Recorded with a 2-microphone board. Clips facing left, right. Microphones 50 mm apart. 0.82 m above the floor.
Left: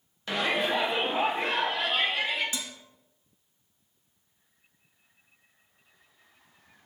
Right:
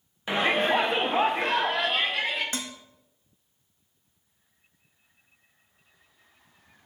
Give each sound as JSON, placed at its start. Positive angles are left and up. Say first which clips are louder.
{"t": 0.3, "sound": "a shout", "louder": "right 4 dB", "side_deg": -20, "distance_m": 0.7}
{"t": 2.5, "sound": "dishes clattering", "louder": "right 3 dB", "side_deg": -50, "distance_m": 0.6}